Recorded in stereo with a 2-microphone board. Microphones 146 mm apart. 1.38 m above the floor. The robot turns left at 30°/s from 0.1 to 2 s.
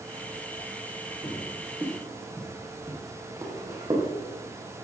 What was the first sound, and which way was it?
Footsteps, 20° left (ahead or behind).